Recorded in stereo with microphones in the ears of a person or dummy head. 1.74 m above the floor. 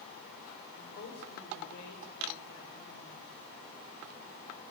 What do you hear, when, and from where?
0.8 s a woman speaking: 55° left (ahead or behind), 7.5 m; by 3.3 s 70° left (ahead or behind), 9.5 m